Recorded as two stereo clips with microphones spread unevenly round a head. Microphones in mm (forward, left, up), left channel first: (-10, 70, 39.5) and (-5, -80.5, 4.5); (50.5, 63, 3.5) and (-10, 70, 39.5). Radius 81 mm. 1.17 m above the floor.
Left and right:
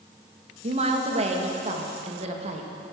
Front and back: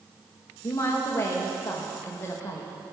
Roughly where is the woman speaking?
Ahead right.